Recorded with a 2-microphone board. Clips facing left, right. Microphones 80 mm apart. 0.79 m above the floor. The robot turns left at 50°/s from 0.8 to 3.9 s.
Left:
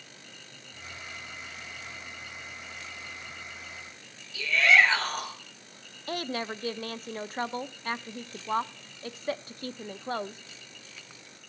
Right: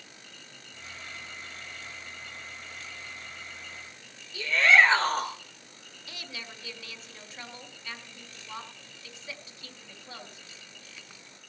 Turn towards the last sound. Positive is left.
turn(degrees=50)  # may be behind; listen again after turning